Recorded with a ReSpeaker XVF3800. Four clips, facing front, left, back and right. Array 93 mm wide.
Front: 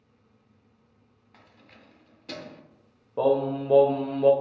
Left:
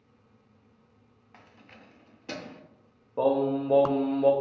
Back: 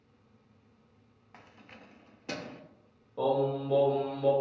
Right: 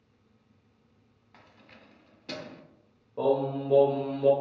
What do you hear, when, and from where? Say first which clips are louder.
1.3 s keys jangling: left 2 dB, back 2 dB; 150° left, 0.5 m
3.2 s singing: left 2 dB, front 5 dB; 35° left, 0.5 m